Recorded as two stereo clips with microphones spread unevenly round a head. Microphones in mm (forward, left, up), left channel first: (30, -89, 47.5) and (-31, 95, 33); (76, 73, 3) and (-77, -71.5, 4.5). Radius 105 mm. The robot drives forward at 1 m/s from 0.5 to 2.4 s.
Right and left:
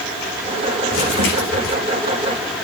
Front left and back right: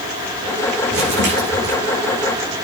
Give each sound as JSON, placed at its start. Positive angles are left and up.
{"t": 0.9, "sound": "crumpling", "azimuth_deg": -95, "distance_m": 9.0}